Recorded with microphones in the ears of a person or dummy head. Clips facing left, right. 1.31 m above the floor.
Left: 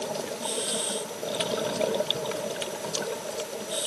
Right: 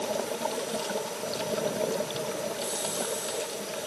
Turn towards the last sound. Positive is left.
No sound to turn to.